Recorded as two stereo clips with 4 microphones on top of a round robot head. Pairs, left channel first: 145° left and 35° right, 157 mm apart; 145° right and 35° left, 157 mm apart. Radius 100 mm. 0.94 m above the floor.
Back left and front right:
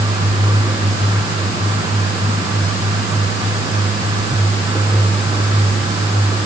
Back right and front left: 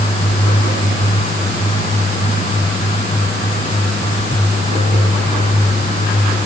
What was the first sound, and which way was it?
Only background noise.